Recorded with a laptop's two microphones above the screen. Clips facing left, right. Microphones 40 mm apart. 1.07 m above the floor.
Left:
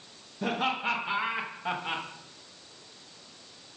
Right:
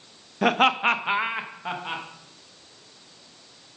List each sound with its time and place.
0.4 s laughter: 85° right, 0.7 m; by 2.0 s 5° right (ahead or behind), 1.0 m